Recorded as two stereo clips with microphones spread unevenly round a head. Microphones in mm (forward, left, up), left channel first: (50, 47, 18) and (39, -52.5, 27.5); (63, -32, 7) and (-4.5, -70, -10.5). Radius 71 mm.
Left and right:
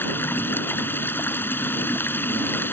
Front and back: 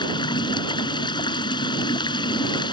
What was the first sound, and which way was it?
Running water, 15° left.